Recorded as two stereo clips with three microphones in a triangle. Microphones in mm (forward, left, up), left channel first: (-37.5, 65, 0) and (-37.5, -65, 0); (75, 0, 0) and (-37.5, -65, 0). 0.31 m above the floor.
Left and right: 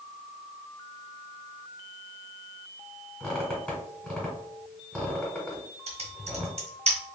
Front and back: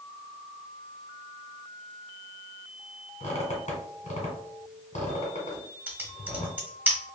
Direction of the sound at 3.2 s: 5° left.